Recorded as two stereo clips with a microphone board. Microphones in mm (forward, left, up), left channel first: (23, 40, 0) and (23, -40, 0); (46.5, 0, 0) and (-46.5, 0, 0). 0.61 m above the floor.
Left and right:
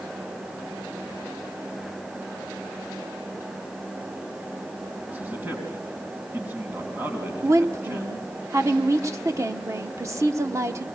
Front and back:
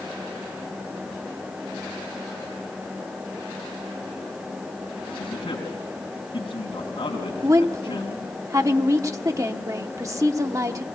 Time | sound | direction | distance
5.1 | a man speaking | 30° right | 4.5 m
7.4 | a woman speaking | 130° right | 1.0 m